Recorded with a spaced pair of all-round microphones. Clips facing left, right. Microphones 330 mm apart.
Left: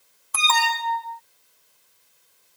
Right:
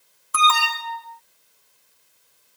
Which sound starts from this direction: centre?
An alarm, at 0.3 s.